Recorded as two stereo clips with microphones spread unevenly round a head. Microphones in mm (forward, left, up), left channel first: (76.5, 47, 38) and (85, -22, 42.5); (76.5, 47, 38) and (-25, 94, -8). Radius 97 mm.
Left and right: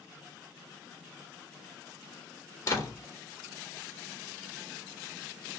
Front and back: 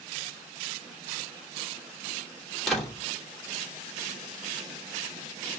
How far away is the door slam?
About 3 m.